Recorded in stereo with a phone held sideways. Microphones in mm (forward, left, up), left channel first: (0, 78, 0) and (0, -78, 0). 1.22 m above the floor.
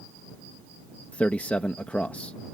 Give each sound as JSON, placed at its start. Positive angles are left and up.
{"t": 1.1, "sound": "a man speaking", "side_deg": 10}